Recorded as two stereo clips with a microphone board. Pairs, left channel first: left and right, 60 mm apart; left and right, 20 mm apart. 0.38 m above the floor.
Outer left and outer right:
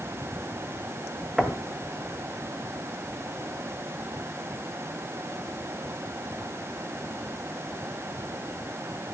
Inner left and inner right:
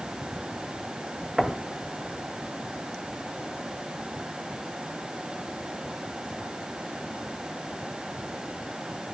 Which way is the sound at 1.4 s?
5° right (ahead or behind).